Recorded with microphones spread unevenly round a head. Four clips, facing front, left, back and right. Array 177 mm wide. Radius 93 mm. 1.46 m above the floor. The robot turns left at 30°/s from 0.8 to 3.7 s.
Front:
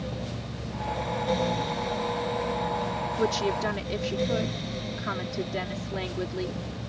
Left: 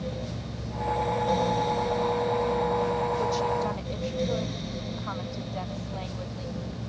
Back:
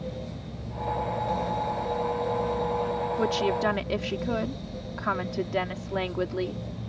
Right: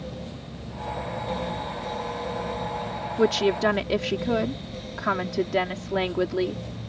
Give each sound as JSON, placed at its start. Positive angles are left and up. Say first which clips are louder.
{"t": 3.2, "sound": "a woman speaking", "louder": "right 5 dB, even", "azimuth_deg": -85}